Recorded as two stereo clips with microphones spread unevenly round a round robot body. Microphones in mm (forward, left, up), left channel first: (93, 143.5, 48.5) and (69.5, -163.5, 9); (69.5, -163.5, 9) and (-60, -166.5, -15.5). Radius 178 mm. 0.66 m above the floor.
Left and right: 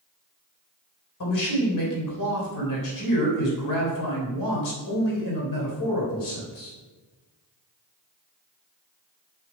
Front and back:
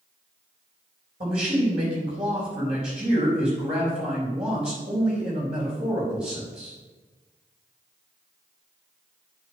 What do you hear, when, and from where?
1.2 s a man speaking: 120° left, 3.5 m